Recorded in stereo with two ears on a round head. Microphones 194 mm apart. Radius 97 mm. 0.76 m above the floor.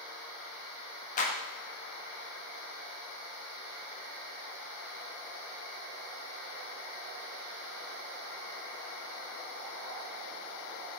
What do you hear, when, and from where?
1.2 s a clap: 35° left (ahead or behind), 0.6 m